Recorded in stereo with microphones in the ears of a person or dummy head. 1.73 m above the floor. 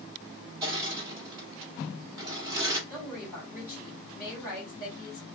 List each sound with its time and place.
0.6 s crushing: 25° right (ahead or behind), 1.2 m
2.9 s a woman speaking: 5° left (ahead or behind), 1.6 m